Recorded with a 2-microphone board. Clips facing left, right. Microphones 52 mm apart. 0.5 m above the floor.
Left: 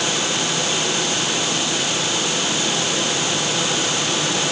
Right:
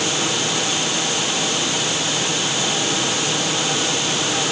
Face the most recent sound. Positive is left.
No sound to turn to.